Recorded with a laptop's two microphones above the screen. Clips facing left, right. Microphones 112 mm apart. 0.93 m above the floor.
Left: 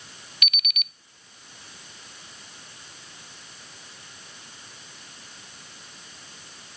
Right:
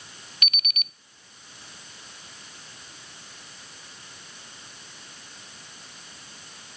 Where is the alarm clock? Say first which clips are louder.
Left 1 dB; 35° right (ahead or behind), 0.5 m.